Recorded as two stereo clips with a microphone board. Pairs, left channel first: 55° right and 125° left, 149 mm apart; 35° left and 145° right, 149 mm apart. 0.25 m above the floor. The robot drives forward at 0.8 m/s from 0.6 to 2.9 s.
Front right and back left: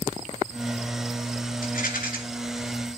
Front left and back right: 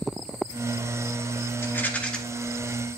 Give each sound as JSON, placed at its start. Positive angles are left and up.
{"t": 1.6, "sound": "a rattle", "azimuth_deg": -40, "distance_m": 2.0}